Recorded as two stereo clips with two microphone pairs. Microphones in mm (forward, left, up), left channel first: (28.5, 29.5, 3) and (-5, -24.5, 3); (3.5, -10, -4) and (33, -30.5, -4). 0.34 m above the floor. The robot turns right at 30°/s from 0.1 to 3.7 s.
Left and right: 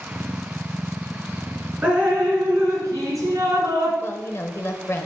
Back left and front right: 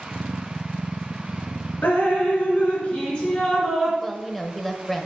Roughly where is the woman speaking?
Ahead left.